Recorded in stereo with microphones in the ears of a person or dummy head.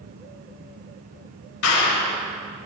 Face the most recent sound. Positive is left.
turn(degrees=65)  # may be behind; listen again after turning